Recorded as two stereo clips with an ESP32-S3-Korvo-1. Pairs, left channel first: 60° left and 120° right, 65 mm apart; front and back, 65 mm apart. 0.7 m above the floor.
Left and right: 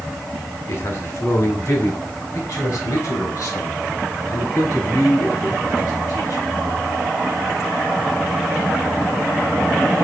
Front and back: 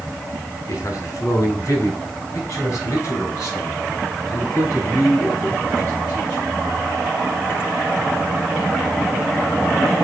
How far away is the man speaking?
About 1.9 m.